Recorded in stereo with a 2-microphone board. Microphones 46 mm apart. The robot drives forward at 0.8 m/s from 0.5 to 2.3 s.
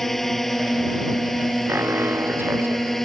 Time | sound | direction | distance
0.0 | a drone | 5° left (ahead or behind) | ?
1.7 | an alarm | 60° right (ahead or behind) | ?